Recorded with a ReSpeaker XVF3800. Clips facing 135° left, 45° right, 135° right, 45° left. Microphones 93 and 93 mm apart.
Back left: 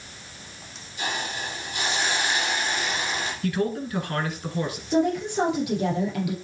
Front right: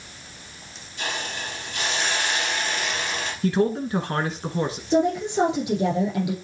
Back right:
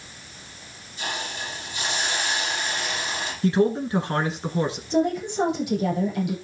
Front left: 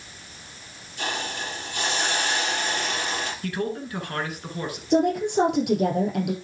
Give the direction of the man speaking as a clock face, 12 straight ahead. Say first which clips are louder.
Front right 5 dB, back right 12 dB; 3 o'clock.